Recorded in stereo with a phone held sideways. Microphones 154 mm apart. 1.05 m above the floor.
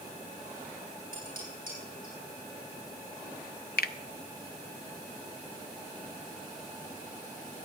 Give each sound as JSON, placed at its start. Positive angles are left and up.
{"t": 1.1, "sound": "dishes clattering", "side_deg": -70, "distance_m": 8.0}
{"t": 3.8, "sound": "a finger snap", "side_deg": 85, "distance_m": 0.6}